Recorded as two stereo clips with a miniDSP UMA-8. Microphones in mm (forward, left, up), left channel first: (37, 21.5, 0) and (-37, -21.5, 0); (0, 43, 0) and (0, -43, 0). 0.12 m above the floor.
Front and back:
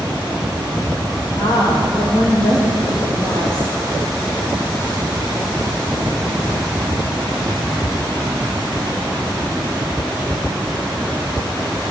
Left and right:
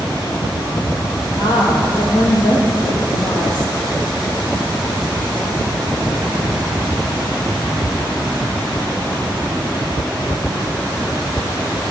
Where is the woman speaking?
65° left, 2.5 m.